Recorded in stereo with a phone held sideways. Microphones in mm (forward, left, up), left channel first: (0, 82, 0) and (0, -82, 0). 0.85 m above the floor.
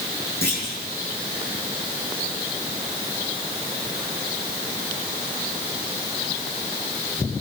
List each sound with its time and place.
0.4 s a clunk: 80° right, 7 m